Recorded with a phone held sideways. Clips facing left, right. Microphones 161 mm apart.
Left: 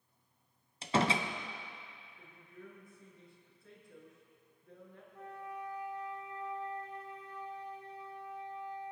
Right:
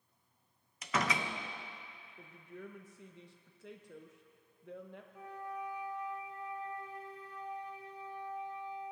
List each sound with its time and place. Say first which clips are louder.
0.8 s a door slam: left 4 dB; 30° left (ahead or behind), 0.6 m
2.2 s a woman speaking: right 5 dB; 85° right, 1.1 m
5.1 s a flute: right 1 dB; 10° right (ahead or behind), 2.5 m